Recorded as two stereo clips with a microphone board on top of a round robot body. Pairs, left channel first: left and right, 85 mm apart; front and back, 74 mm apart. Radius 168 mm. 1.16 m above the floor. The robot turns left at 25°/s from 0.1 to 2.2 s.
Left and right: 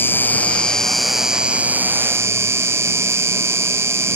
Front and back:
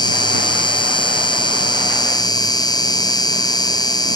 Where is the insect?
25° left; by 4.2 s 30° right.